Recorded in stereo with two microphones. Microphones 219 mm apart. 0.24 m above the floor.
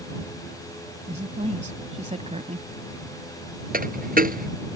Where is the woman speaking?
30° right (ahead or behind).